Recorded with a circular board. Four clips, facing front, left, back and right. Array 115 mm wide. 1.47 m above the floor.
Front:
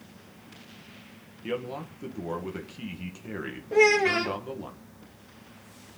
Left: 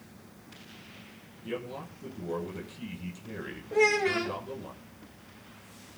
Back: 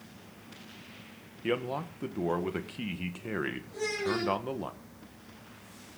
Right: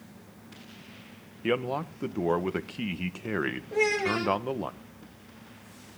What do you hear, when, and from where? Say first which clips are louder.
1.4 s a man speaking: right 9 dB, back 2 dB; 105° right, 1.7 m
3.7 s a child speaking: left 2 dB, front 13 dB; 5° left, 1.6 m